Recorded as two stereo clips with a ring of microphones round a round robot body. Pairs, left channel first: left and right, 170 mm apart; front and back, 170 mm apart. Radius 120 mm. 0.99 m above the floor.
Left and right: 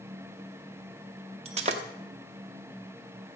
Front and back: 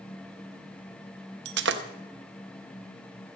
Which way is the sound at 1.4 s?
155° right.